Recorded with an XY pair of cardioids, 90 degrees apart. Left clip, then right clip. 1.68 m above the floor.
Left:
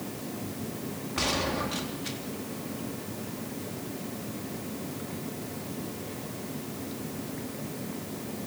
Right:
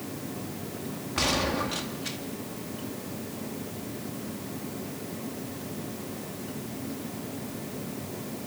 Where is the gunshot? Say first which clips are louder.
Right 2 dB; 20° right, 3 m.